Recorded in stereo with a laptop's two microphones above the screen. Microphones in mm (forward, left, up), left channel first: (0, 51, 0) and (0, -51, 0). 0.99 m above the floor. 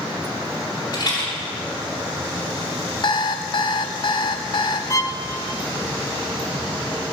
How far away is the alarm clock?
About 0.8 m.